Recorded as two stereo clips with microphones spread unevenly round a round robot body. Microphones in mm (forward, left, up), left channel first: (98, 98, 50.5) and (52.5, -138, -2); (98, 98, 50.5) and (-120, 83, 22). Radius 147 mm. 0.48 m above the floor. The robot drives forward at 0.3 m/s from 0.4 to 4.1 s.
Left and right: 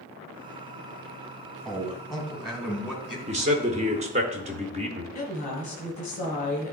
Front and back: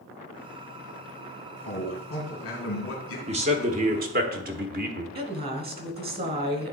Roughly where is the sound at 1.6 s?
Ahead.